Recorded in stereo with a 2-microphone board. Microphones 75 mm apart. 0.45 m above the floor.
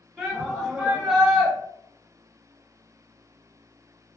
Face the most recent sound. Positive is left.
turn(degrees=-5)  # may be behind; listen again after turning